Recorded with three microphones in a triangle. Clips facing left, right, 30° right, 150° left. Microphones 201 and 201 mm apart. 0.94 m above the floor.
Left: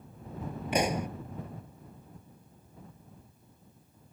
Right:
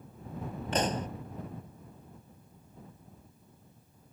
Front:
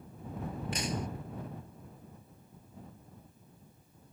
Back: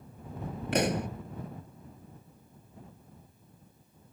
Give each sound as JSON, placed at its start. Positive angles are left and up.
{"t": 0.7, "sound": "a pop", "azimuth_deg": 170}